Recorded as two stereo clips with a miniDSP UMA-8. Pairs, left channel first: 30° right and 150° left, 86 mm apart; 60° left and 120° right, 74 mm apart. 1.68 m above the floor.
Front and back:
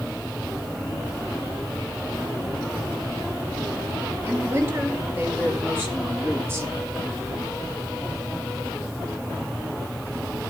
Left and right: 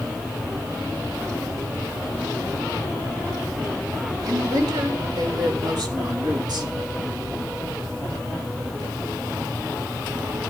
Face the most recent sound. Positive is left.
turn(degrees=-150)